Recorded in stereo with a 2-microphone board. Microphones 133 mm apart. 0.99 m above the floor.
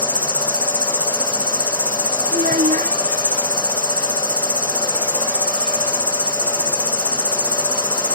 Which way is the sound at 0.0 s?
10° right (ahead or behind).